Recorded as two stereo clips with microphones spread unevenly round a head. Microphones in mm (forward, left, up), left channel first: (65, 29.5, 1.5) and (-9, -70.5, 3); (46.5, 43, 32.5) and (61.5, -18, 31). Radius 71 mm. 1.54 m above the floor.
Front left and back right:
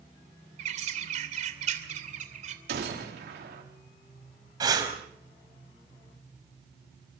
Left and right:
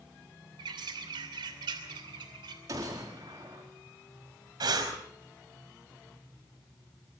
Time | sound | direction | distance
0.6 | a bird | 105° right | 2.5 m
2.7 | a gunshot | 135° right | 4.5 m
4.6 | breathing | 65° right | 5 m